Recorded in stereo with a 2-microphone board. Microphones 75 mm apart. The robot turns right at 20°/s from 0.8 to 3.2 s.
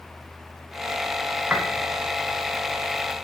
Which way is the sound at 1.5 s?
20° right (ahead or behind).